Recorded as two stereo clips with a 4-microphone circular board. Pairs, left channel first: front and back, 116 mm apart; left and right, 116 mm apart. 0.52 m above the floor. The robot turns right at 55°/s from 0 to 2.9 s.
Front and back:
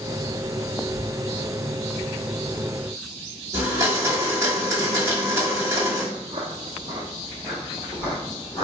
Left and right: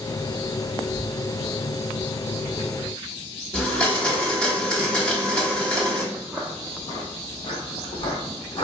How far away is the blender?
About 1.1 m.